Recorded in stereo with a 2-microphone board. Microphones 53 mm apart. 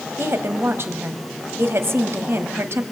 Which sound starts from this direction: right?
A woman speaking, at 0.2 s.